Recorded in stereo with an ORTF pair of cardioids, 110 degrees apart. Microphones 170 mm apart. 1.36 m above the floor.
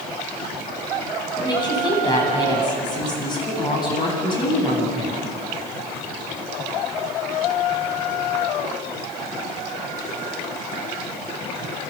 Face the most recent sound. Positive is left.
turn(degrees=25)